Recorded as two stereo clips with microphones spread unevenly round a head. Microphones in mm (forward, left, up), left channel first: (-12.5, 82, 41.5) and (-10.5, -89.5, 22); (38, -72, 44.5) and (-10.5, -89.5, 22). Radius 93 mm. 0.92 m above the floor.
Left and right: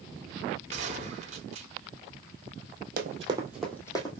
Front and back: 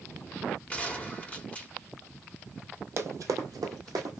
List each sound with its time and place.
0.7 s a gunshot: 35° right, 1.3 m
3.0 s running footsteps: 120° right, 1.3 m; by 4.2 s 145° left, 1.7 m